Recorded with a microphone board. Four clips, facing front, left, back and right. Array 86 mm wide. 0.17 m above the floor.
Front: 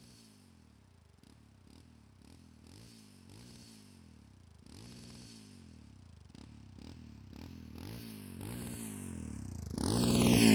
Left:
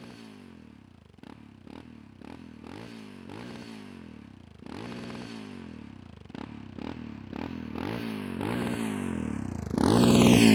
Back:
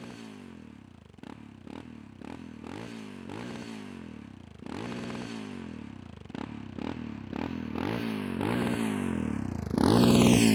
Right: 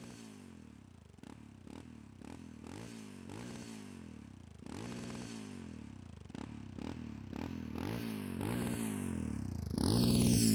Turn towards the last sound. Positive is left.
turn(degrees=85)